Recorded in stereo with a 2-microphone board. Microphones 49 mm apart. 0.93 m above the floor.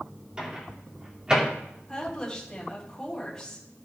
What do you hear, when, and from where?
0.4 s a microwave: 15° right (ahead or behind), 2.5 m
1.9 s a woman speaking: 10° left (ahead or behind), 6.5 m